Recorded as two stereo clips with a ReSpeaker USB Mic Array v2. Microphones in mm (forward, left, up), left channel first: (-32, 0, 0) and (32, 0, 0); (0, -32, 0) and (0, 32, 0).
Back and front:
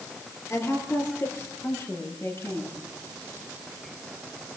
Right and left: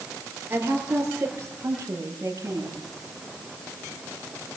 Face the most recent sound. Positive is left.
turn(degrees=130)